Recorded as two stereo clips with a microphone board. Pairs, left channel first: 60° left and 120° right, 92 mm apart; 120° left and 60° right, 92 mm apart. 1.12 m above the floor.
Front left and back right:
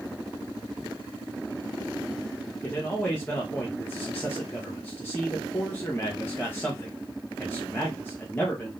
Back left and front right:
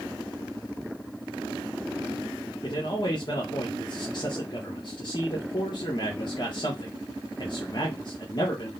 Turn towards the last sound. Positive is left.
turn(degrees=125)